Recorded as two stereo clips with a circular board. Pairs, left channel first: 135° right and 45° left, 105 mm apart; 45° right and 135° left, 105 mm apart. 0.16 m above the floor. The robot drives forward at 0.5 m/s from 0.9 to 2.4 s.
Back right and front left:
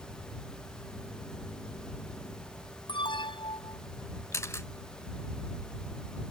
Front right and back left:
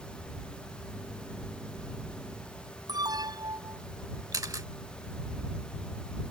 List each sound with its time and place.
2.9 s an alarm: 175° right
4.3 s a camera shutter: 175° left